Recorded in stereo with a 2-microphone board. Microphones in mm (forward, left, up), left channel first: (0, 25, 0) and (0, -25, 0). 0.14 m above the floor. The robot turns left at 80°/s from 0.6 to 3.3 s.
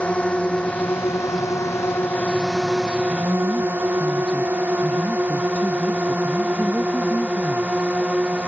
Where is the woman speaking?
30° left (ahead or behind); by 7.7 s 20° left (ahead or behind).